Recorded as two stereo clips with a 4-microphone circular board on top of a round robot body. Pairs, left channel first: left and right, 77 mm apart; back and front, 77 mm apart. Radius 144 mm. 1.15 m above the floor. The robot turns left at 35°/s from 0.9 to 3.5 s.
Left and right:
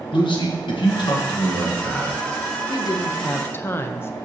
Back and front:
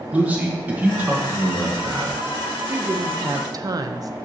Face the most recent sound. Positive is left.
turn(degrees=30)